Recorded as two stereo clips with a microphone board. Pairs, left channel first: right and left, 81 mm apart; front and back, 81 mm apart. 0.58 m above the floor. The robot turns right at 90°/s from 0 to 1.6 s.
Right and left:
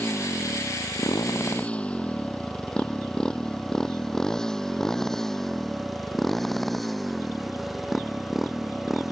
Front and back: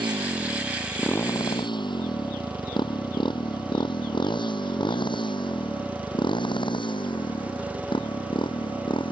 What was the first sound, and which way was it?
A motorcycle, 165° right.